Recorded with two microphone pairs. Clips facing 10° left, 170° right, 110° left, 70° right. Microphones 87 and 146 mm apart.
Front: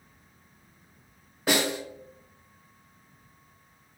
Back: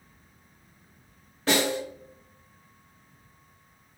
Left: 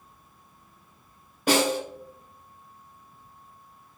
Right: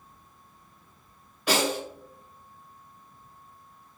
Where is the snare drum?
85° left, 1.8 m.